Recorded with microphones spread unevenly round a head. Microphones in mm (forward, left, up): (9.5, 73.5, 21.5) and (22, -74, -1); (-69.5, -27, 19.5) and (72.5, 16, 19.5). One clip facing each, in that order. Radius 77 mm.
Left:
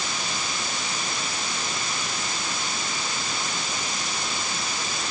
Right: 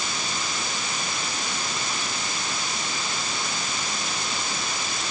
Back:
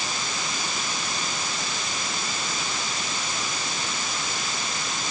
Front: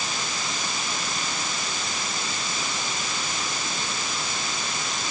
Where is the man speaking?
I don't hear a man speaking.